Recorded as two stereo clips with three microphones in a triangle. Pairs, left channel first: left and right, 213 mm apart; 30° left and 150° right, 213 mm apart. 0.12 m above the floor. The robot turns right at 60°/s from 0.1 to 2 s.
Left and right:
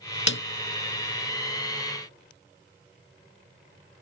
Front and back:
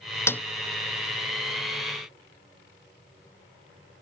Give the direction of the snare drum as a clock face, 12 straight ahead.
8 o'clock.